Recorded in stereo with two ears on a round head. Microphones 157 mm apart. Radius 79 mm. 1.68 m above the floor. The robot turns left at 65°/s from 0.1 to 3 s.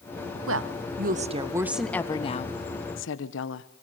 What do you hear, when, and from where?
0.5 s a woman speaking: 95° right, 1.5 m; by 3.7 s 100° left, 1.5 m